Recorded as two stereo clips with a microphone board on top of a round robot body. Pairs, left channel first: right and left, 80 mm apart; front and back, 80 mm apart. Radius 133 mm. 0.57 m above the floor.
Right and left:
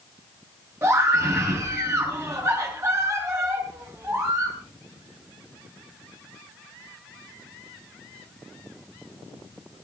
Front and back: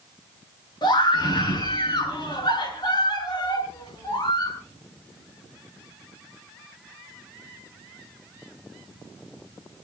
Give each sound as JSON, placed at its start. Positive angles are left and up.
{"t": 0.8, "sound": "a scream", "azimuth_deg": 30, "distance_m": 8.0}